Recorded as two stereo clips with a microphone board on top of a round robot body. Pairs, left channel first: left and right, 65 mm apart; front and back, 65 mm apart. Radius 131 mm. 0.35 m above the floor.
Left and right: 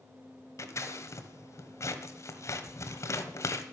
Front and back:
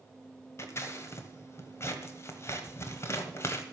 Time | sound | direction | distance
0.6 | scissors | 50° left | 1.3 m